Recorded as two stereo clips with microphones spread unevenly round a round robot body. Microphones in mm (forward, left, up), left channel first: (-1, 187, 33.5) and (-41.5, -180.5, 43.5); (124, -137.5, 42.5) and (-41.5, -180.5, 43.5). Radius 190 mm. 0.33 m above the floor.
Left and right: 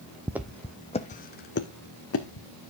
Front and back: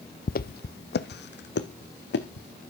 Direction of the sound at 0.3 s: 15° right.